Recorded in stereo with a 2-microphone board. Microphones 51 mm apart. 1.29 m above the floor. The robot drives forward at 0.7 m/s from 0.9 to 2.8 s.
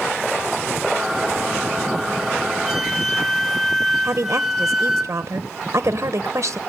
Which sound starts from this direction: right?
A woman speaking, at 4.0 s.